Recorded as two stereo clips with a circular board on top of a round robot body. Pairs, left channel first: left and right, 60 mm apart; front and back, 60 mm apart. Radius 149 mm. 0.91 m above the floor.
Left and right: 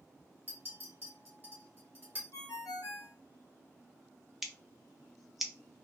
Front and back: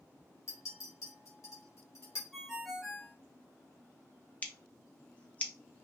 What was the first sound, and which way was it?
A clink, 30° right.